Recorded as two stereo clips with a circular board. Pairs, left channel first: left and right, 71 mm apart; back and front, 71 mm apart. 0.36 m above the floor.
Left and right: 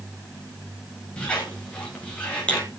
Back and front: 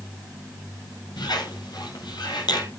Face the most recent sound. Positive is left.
turn(degrees=165)